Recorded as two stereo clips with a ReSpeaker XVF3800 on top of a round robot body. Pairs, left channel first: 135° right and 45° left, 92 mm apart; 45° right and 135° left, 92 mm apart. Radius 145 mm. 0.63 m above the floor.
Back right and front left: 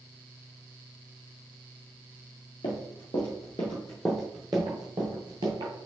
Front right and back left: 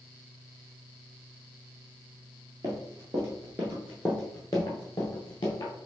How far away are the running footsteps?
About 1.0 m.